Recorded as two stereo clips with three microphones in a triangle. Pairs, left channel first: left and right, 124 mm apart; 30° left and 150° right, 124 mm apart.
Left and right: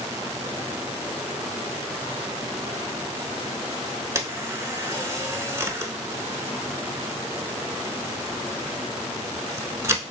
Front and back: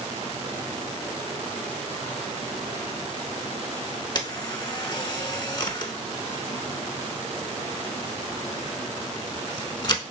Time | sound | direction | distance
4.2 | a camera shutter | 25° right | 0.7 m